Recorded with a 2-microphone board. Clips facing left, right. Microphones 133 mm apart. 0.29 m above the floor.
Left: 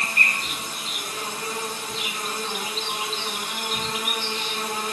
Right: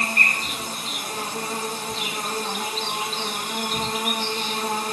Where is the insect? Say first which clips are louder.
Right 2 dB; 55° right (ahead or behind), 6.5 m.